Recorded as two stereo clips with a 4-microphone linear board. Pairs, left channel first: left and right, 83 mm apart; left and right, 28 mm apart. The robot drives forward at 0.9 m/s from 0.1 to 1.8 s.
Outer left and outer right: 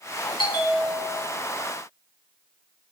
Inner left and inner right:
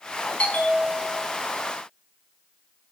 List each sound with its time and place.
0.4 s a bell: 65° left (ahead or behind), 4.5 m; by 1.4 s 55° left (ahead or behind), 5 m